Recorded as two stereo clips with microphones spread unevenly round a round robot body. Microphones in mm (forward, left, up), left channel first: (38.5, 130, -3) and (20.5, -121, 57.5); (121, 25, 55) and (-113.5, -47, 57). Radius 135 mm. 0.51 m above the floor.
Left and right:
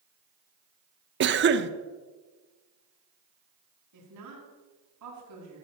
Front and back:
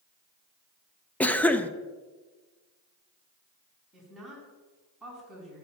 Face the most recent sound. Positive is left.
turn(degrees=-75)